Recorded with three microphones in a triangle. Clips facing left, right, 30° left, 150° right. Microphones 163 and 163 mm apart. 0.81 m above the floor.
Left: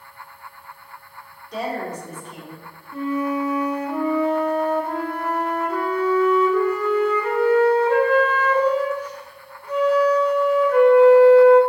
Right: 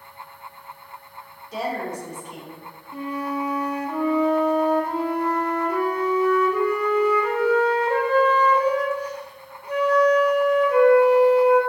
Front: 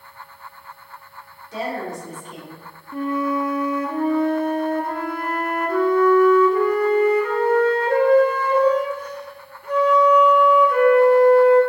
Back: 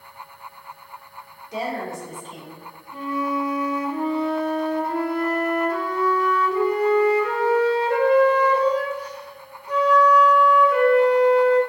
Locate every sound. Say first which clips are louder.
1.5 s a woman speaking: left 1 dB, front 1 dB; 170° right, 0.9 m; by 2.6 s 25° right, 1.1 m
2.9 s a flute: left 5 dB, front 3 dB; 15° right, 0.6 m